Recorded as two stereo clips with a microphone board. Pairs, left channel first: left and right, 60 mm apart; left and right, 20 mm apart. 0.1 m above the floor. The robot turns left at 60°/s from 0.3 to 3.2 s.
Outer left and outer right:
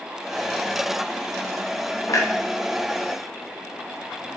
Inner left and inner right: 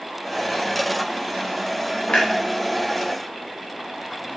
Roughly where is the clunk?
Left.